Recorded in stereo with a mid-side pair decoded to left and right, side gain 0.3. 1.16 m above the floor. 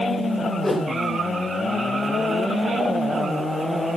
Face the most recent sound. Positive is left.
turn(degrees=35)